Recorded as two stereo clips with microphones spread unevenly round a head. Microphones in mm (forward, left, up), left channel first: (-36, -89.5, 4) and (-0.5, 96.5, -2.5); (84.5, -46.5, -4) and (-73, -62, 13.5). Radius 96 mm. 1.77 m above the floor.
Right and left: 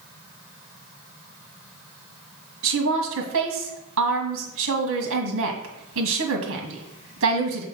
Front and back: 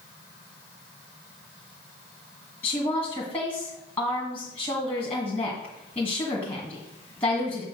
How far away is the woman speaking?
About 1.7 m.